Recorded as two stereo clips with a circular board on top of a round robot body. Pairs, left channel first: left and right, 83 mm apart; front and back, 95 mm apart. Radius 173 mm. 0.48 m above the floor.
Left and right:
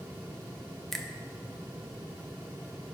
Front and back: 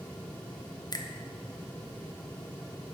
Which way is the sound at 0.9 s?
5° left.